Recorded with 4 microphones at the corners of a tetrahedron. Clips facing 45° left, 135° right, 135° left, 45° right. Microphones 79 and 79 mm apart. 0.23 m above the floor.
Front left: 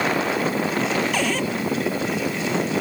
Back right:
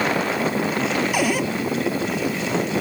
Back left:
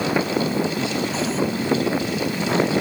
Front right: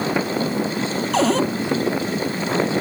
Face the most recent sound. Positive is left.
turn(degrees=-55)